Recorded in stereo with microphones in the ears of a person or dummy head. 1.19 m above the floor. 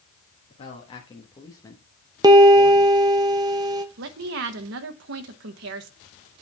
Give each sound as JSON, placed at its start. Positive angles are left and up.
{"t": 0.5, "sound": "a man speaking", "side_deg": 35, "distance_m": 1.5}
{"t": 2.2, "sound": "a piano", "side_deg": -15, "distance_m": 0.6}
{"t": 4.0, "sound": "a woman speaking", "side_deg": -65, "distance_m": 1.0}